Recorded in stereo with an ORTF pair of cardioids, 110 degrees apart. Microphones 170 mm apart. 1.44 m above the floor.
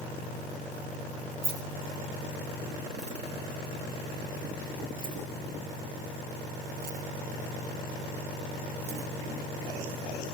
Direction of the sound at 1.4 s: 35° right.